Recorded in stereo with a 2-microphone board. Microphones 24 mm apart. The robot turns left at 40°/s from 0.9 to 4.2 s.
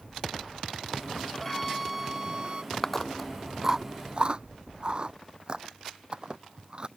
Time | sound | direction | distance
1.3 | a violin | 15° left | ?
2.7 | chewing | 25° left (ahead or behind) | ?